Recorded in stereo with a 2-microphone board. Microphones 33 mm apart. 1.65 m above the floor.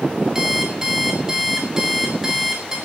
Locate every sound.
0.3 s an alarm clock: 15° right (ahead or behind), 5 m